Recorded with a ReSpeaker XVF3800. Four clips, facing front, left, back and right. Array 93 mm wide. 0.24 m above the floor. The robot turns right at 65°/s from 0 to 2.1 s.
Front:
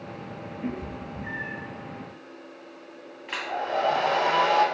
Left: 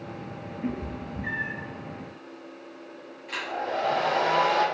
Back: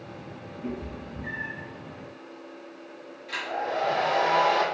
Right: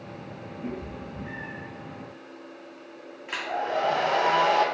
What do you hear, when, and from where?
0.6 s a cat meowing: 45° left, 1.7 m; by 1.6 s 105° left, 1.7 m
3.3 s a hair dryer: 30° right, 1.8 m